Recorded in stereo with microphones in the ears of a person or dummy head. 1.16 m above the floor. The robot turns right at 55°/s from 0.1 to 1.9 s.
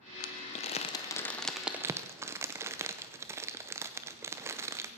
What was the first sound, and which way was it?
Crumpling, 40° left (ahead or behind).